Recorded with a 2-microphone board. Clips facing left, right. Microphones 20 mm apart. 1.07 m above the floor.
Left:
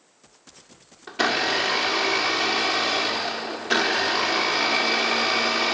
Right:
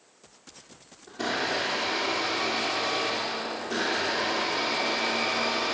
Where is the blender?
65° left (ahead or behind), 1.5 m.